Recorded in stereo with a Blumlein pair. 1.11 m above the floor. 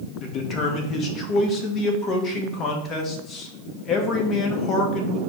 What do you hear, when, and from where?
0.2 s a man speaking: 25° left, 0.9 m